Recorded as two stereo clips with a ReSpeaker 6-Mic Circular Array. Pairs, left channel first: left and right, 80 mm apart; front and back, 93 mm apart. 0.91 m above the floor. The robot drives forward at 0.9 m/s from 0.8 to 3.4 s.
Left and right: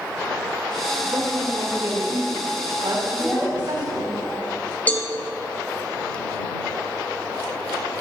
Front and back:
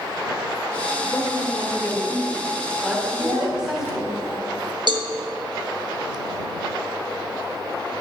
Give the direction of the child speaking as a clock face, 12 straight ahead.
7 o'clock.